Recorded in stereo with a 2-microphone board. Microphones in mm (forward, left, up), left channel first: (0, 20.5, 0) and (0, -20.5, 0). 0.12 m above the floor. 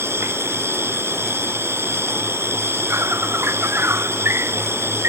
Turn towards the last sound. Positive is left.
turn(degrees=-75)  # may be behind; listen again after turning